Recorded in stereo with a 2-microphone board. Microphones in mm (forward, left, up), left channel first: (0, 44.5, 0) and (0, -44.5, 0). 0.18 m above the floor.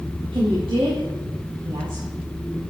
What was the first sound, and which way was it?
A woman speaking, 75° right (ahead or behind).